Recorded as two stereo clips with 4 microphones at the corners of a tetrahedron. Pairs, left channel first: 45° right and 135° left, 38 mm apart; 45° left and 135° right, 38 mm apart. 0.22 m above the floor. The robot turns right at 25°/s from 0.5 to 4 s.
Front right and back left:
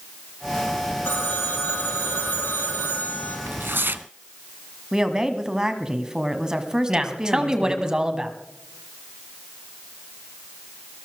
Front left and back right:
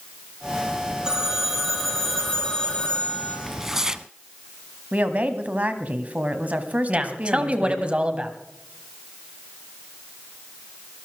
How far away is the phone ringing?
About 5.5 m.